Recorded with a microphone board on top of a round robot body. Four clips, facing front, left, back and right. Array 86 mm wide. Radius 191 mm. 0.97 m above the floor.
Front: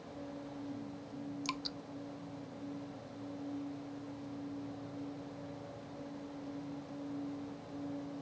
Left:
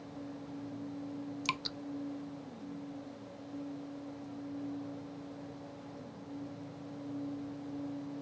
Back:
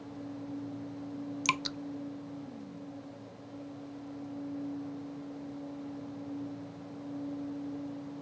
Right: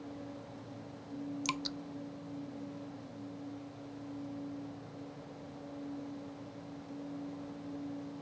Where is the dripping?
175° left.